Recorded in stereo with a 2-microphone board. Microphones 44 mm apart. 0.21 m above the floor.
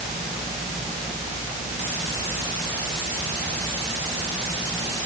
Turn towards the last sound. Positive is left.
No sound to turn to.